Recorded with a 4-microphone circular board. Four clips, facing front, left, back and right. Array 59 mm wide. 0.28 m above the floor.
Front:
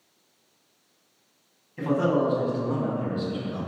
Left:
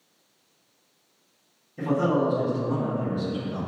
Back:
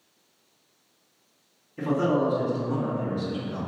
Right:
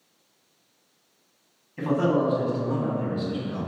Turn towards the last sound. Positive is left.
turn(degrees=-15)